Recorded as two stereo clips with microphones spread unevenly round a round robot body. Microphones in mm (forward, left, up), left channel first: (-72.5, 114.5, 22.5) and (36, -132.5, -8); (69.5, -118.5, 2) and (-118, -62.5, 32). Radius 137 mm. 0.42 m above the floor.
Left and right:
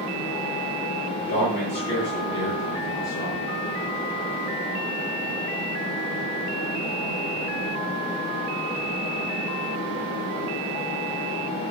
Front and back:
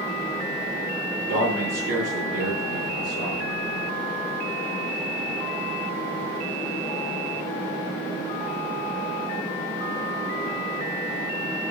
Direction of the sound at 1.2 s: 170° left.